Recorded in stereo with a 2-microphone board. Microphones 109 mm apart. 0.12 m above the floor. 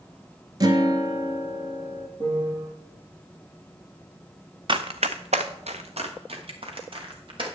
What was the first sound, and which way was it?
A guitar, 35° right (ahead or behind).